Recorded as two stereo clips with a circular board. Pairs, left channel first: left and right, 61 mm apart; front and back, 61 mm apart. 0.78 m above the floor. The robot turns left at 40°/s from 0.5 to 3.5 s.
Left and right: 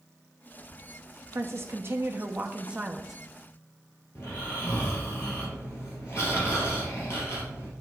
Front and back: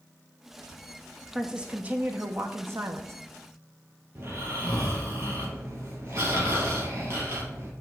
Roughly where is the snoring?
Behind left.